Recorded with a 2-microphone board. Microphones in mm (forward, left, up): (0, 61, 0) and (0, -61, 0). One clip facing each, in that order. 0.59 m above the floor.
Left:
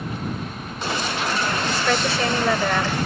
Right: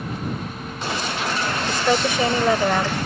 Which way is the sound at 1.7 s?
15° right (ahead or behind).